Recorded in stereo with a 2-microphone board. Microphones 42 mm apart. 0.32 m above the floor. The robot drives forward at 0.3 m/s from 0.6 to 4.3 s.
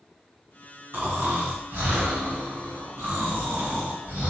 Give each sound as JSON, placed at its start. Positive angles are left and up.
{"t": 0.9, "sound": "snoring", "side_deg": -65, "distance_m": 1.7}